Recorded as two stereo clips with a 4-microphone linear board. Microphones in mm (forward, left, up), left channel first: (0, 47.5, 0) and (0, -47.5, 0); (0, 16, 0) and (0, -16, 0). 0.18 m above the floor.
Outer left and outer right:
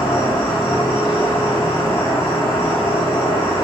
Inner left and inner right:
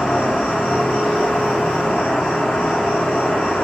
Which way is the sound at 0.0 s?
25° left (ahead or behind).